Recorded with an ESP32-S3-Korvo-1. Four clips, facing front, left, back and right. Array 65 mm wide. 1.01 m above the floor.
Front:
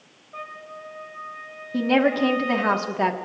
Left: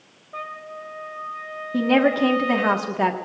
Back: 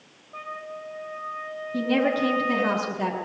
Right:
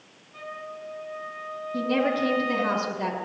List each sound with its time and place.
0.3 s a trumpet: 85° left, 4 m
1.7 s a woman speaking: 50° left, 1.6 m